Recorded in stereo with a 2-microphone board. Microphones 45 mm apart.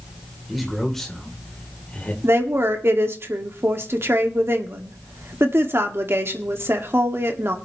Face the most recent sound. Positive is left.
turn(degrees=-65)  # may be behind; listen again after turning